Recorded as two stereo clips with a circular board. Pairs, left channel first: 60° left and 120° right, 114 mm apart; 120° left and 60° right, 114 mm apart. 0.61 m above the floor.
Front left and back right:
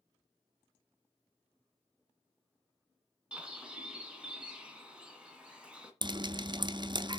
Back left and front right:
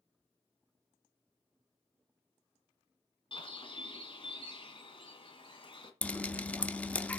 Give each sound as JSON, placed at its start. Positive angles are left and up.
{"t": 3.3, "sound": "a bird", "azimuth_deg": 160, "distance_m": 1.7}
{"t": 6.0, "sound": "dripping", "azimuth_deg": -165, "distance_m": 0.5}